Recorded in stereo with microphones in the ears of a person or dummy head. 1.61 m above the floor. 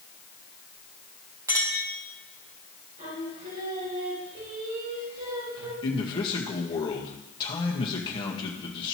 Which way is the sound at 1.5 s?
20° right (ahead or behind).